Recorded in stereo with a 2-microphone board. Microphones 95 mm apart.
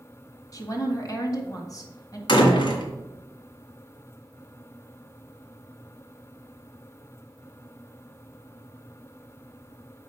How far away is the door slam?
About 2 m.